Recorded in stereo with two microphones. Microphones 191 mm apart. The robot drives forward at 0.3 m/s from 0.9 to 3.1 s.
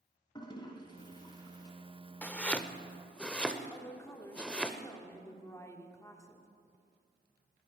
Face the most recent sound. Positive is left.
turn(degrees=15)  # may be behind; listen again after turning